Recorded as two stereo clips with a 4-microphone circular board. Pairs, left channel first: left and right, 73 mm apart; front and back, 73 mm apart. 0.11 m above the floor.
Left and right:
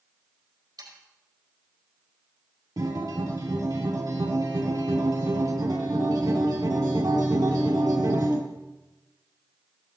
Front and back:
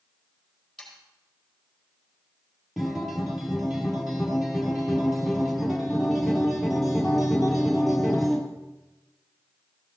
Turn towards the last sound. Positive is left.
turn(degrees=-90)